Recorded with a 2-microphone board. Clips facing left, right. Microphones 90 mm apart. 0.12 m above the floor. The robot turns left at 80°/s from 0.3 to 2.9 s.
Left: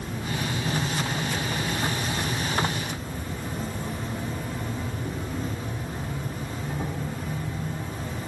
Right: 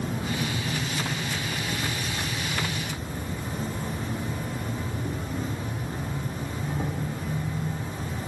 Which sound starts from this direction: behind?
An insect, at 0.0 s.